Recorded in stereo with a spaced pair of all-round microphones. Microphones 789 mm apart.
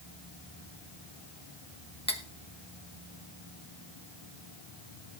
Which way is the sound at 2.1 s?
10° left (ahead or behind).